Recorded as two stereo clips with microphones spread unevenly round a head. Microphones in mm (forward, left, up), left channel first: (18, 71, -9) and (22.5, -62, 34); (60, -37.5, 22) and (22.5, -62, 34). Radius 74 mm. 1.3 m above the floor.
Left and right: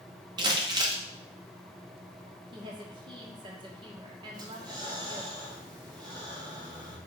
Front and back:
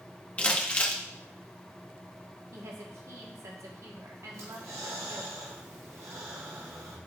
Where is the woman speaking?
150° right, 1.6 m.